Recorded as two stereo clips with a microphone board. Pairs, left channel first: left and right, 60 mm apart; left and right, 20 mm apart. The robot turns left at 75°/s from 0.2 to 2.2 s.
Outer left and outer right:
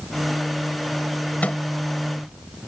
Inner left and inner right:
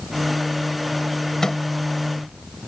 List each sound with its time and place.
1.4 s a microwave: 25° left (ahead or behind); by 1.6 s 30° left (ahead or behind)